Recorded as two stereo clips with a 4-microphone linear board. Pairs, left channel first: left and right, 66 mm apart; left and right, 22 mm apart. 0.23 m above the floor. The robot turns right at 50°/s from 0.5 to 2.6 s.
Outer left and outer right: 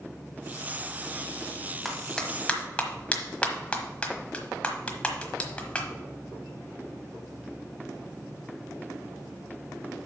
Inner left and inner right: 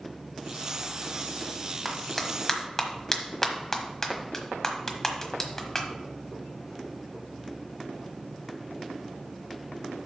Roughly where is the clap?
Centre.